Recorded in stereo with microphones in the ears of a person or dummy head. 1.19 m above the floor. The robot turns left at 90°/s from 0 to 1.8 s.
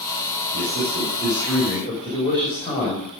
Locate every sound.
0.5 s a man speaking: 100° right, 5.5 m; by 3.1 s 145° left, 5.5 m